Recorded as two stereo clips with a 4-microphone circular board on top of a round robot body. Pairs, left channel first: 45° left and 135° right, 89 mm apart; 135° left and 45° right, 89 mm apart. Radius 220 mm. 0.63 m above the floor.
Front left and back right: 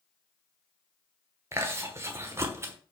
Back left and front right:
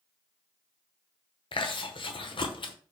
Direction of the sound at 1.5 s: 165° left.